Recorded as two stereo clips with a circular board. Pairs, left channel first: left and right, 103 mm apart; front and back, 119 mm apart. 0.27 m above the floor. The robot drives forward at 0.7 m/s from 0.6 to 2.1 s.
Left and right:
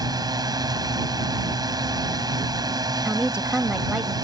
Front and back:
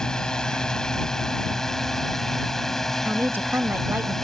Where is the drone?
80° right; by 4.2 s 85° right.